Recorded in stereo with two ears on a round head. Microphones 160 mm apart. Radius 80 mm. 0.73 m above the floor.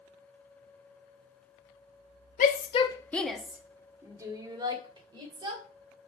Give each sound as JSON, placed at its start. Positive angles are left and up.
{"t": 2.4, "sound": "a shout", "side_deg": 45, "distance_m": 0.8}